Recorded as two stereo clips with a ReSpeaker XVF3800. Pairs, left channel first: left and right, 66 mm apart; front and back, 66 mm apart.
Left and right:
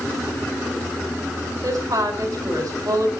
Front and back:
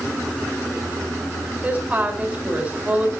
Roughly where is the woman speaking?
Right.